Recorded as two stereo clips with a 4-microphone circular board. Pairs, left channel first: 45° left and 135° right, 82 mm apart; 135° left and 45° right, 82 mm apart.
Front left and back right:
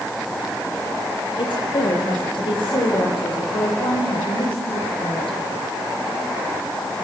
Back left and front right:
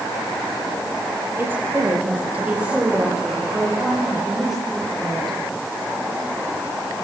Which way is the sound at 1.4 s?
20° left.